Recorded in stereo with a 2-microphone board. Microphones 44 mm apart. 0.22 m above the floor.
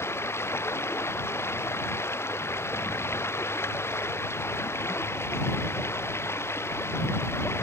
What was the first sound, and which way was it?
Running water, 75° left (ahead or behind).